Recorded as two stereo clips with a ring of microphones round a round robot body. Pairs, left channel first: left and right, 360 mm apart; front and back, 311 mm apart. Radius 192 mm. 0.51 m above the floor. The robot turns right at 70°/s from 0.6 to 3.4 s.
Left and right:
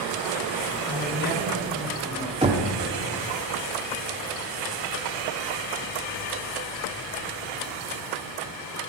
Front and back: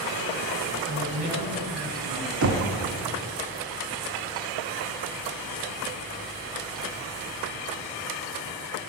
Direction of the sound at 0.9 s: 125° left.